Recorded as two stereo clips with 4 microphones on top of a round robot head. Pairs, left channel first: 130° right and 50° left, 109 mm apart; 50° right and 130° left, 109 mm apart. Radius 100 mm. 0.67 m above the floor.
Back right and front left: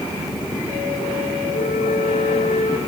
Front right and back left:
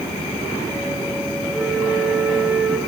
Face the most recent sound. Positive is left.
turn(degrees=-140)